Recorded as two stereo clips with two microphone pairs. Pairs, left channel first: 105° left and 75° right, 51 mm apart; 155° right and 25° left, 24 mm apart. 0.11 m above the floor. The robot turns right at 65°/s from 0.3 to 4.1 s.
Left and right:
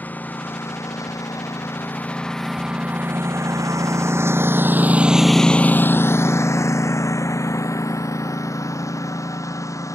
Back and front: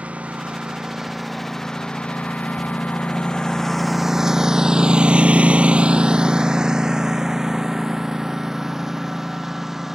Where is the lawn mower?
45° left; by 9.9 s 100° left.